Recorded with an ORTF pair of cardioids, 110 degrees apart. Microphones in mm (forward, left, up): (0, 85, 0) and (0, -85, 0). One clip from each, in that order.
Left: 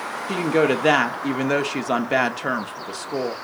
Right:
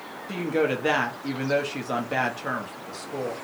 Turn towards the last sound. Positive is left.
turn(degrees=45)